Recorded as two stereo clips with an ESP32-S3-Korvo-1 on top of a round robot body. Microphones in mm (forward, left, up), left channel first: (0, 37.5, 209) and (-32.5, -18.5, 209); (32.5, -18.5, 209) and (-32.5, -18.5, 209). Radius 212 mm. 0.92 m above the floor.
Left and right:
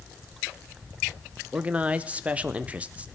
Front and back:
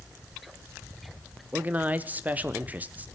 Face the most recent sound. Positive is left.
turn(degrees=-160)